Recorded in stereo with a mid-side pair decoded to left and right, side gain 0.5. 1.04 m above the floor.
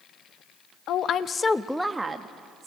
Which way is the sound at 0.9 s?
70° left.